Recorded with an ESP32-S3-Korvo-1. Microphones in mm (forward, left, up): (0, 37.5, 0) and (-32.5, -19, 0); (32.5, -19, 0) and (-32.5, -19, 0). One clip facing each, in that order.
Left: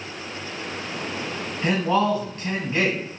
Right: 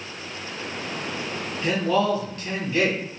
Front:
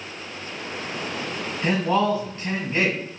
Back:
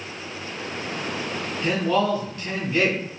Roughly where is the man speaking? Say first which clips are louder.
Left 1 dB, front 1 dB; ahead left.